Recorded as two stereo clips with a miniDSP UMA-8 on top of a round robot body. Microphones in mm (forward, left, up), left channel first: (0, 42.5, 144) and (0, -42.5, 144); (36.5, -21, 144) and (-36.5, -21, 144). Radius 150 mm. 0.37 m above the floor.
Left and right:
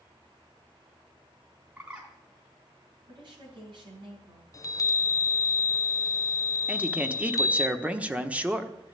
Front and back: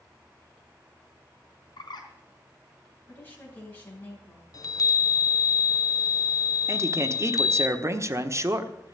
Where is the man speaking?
155° right, 1.3 m.